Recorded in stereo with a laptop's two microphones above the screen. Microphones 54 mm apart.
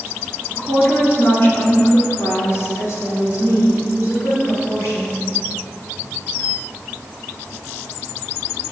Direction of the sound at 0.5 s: 25° left (ahead or behind).